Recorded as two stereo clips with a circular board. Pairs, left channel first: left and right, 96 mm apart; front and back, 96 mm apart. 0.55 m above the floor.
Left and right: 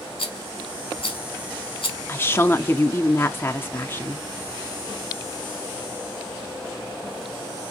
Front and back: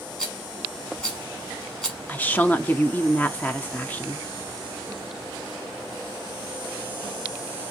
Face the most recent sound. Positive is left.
turn(degrees=50)